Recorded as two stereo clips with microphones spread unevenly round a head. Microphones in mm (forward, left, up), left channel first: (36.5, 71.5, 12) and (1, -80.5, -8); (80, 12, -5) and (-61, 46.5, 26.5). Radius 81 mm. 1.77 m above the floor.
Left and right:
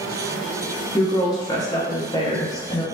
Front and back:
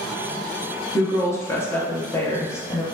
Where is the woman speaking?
65° left, 0.8 m.